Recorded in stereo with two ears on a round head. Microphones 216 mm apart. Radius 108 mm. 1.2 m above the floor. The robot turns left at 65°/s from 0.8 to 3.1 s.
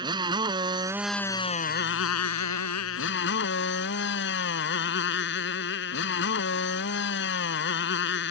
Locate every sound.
0.0 s a motorcycle: 160° right; by 8.3 s 50° left